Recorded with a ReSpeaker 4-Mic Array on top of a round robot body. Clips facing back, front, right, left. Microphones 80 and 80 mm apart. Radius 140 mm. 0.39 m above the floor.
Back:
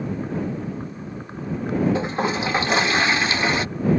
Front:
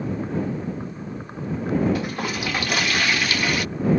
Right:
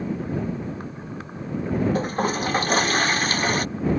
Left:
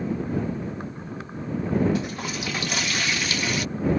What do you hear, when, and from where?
1.9 s a toilet flushing: 125° right